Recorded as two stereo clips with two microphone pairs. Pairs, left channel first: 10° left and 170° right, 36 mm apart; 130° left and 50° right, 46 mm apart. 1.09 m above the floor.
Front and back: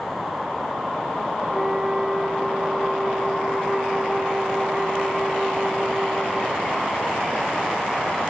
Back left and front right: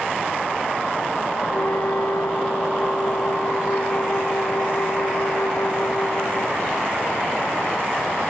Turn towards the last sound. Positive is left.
turn(degrees=110)